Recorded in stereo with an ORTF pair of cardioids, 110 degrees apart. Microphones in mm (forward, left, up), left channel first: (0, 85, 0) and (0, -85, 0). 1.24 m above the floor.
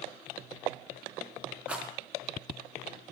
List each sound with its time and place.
1.7 s a rattle: 5° right, 4 m